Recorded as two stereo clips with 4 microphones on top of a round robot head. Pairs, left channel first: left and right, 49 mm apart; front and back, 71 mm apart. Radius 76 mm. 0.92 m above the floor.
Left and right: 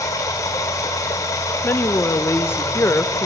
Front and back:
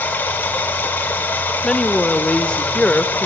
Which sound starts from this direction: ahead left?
Running water, at 0.0 s.